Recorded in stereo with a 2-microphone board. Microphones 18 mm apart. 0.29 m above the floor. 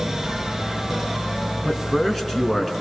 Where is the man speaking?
20° left (ahead or behind), 3.5 m.